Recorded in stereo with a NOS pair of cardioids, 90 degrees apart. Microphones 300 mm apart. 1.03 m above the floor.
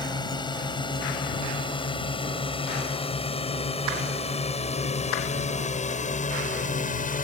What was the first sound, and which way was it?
A drone, 15° left.